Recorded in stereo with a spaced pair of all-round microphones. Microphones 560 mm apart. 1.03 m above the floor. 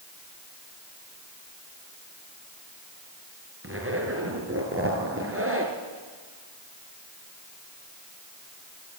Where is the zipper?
25° right (ahead or behind), 3 m.